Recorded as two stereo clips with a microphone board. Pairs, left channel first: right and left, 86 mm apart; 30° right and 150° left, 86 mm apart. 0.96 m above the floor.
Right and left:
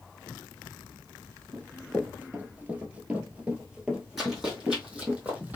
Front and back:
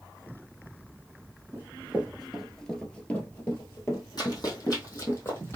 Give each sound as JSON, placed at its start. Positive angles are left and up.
{"t": 1.5, "sound": "running footsteps", "azimuth_deg": 130, "distance_m": 1.0}
{"t": 4.2, "sound": "running footsteps", "azimuth_deg": 5, "distance_m": 1.9}